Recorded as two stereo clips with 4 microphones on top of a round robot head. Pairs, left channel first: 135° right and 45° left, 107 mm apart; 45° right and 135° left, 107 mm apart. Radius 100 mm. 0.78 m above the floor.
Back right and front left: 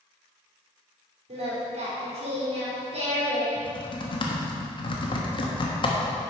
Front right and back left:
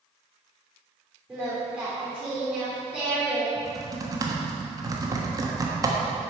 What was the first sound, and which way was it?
Singing, 55° left.